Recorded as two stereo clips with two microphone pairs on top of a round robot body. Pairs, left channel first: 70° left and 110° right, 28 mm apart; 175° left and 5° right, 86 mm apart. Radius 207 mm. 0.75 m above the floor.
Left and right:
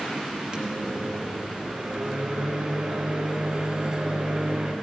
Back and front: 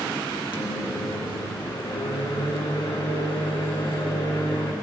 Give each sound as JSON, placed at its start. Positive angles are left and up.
{"t": 0.5, "sound": "a microwave", "azimuth_deg": -155, "distance_m": 1.2}